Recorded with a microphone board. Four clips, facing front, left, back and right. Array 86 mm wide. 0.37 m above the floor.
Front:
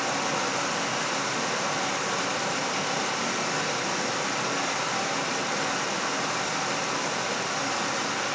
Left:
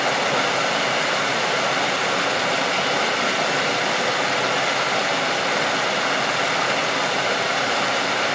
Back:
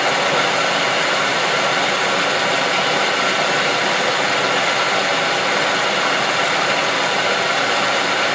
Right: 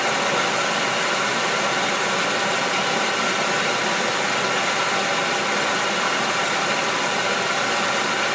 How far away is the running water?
About 1.7 m.